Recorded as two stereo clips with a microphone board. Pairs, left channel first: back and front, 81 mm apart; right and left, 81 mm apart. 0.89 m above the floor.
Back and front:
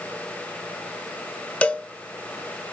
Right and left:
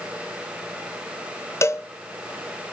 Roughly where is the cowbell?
Behind right.